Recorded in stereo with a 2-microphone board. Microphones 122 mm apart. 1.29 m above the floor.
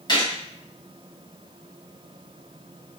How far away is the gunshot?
About 0.9 m.